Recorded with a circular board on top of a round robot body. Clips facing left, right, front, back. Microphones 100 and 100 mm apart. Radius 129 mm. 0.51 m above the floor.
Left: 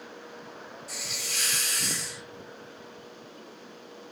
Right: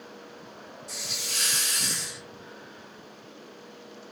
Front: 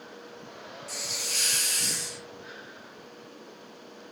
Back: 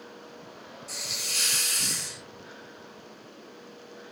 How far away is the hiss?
About 1.6 m.